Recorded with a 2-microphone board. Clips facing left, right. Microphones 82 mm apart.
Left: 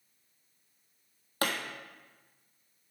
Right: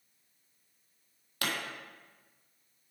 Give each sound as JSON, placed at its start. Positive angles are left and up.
{"t": 1.4, "sound": "a pop", "side_deg": 40, "distance_m": 1.4}